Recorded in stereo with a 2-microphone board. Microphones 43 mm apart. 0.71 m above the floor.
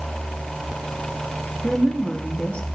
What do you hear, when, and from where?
1.6 s a woman speaking: 25° left (ahead or behind), 1.0 m